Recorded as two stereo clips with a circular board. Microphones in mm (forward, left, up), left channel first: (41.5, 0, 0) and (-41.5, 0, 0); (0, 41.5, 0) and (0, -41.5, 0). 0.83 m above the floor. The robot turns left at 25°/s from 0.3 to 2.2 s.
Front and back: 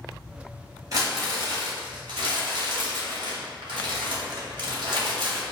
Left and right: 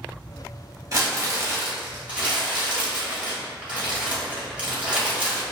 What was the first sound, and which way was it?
Crumpling, 135° right.